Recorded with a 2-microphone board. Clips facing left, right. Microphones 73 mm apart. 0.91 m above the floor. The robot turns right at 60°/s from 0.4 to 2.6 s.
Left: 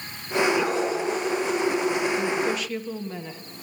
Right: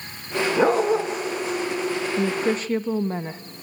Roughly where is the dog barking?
Right.